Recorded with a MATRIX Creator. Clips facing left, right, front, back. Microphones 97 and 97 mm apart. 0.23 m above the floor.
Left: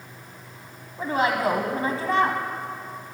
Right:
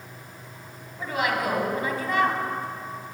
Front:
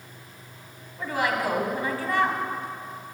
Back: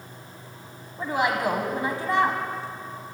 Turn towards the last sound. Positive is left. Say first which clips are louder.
# left 3 dB, back 2 dB
turn(degrees=125)